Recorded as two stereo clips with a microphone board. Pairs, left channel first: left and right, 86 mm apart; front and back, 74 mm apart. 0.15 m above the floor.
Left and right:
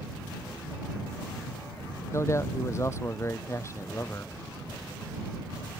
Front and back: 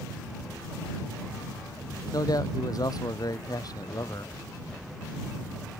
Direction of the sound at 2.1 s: 35° left.